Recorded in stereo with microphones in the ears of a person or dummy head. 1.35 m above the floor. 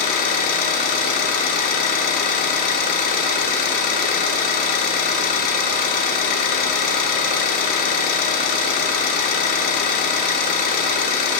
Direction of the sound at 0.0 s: 60° left (ahead or behind).